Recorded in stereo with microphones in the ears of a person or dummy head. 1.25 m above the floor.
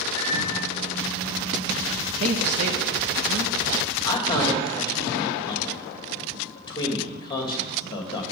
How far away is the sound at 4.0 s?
About 2 m.